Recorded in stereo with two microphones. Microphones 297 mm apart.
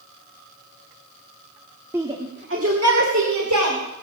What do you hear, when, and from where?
1.9 s a shout: 10° right (ahead or behind), 1.3 m; by 3.8 s 80° right, 3 m